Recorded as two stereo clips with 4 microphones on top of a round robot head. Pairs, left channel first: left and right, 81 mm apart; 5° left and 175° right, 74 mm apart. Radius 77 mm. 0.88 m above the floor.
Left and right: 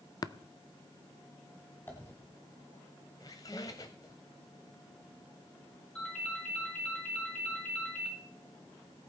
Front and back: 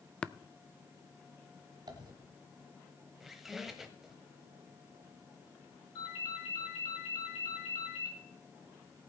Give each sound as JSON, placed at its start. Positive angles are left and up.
{"t": 0.2, "sound": "tapping", "azimuth_deg": 80, "distance_m": 0.6}
{"t": 1.9, "sound": "a dropped coin", "azimuth_deg": 160, "distance_m": 1.4}
{"t": 3.2, "sound": "a squeak", "azimuth_deg": 105, "distance_m": 0.7}
{"t": 6.0, "sound": "a ringtone", "azimuth_deg": 10, "distance_m": 5.5}